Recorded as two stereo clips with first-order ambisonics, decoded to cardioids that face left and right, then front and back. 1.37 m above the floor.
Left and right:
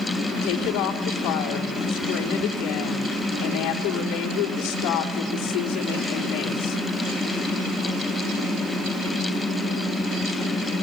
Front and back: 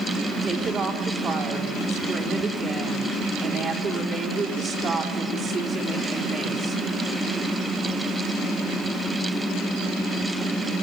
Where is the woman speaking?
120° left, 3.5 m.